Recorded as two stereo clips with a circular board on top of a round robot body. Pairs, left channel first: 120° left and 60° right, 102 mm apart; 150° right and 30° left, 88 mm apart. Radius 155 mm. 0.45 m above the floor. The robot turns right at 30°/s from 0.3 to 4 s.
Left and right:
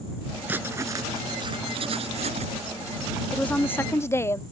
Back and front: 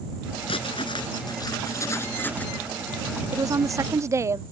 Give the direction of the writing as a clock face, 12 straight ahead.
4 o'clock.